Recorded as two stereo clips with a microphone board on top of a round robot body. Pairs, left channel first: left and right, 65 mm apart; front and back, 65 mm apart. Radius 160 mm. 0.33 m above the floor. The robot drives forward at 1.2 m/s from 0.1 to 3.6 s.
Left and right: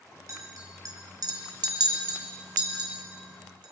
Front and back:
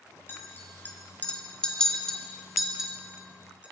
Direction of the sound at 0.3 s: 55° right.